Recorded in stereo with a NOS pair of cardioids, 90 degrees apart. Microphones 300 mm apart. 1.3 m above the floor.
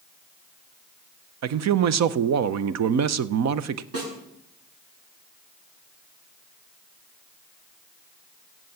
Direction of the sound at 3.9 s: 50° right.